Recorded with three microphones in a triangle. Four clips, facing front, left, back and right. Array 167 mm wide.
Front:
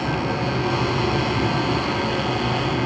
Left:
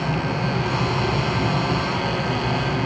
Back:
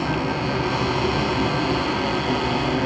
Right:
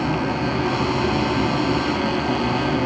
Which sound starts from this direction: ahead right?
An insect, at 0.0 s.